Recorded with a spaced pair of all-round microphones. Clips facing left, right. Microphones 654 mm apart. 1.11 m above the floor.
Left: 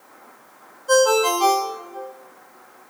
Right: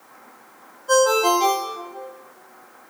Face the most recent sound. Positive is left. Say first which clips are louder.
# left 1 dB
turn(degrees=40)  # may be behind; listen again after turning